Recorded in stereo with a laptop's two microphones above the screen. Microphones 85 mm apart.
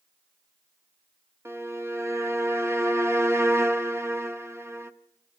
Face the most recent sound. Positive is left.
turn(degrees=-30)  # may be behind; listen again after turning